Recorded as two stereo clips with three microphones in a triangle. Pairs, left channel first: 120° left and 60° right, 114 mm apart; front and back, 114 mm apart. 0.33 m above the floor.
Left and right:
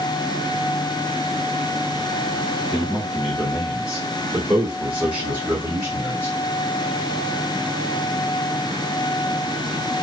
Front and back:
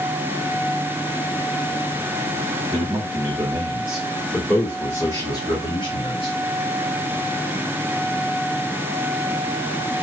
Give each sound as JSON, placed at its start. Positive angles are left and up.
{"t": 2.7, "sound": "a man speaking", "azimuth_deg": -145, "distance_m": 1.9}